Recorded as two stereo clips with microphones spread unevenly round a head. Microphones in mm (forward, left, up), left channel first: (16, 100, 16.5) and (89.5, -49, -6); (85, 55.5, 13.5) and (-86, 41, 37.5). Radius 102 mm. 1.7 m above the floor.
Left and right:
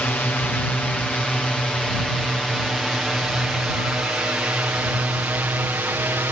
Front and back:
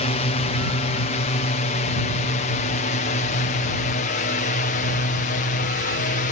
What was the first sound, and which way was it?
A drone, 35° left.